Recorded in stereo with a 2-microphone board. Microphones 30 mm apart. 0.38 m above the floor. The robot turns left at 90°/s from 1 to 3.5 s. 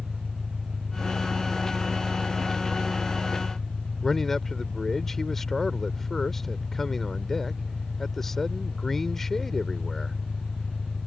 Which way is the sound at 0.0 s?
30° right.